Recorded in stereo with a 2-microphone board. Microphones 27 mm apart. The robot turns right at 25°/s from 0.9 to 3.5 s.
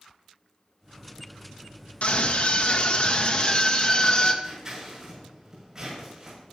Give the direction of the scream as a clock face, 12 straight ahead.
9 o'clock.